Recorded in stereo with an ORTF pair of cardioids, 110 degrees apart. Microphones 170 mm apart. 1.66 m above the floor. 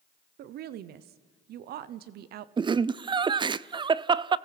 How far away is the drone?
I don't hear a drone.